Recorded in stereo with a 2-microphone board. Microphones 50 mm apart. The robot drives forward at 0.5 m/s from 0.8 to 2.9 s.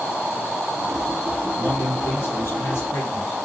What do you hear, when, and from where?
1.6 s a man speaking: 50° left (ahead or behind), 2 m; by 3.4 s 55° left (ahead or behind), 2 m